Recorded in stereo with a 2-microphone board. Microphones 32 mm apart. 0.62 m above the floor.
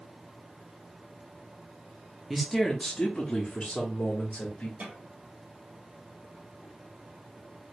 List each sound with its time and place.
2.3 s a man speaking: 5° right (ahead or behind), 0.6 m; by 4.7 s 55° left (ahead or behind), 1.4 m
4.8 s a snare drum: 70° right (ahead or behind), 1.8 m